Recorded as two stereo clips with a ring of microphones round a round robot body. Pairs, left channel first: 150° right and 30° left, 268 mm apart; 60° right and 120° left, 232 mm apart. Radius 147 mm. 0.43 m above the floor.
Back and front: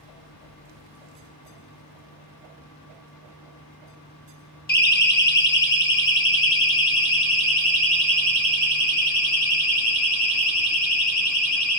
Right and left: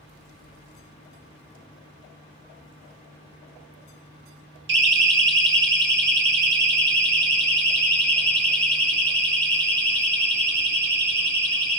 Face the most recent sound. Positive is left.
turn(degrees=175)